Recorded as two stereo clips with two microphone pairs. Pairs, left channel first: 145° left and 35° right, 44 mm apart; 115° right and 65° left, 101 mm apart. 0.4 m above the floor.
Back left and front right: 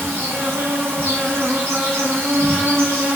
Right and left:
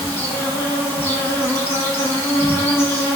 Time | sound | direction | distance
0.0 | an insect | 50° right | 0.8 m